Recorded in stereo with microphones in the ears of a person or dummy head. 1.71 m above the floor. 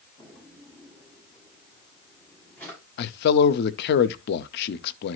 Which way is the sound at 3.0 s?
55° left (ahead or behind).